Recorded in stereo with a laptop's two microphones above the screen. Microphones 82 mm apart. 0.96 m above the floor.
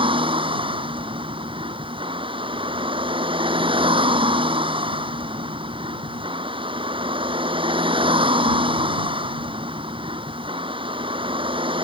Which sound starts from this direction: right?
A vehicle, at 0.0 s.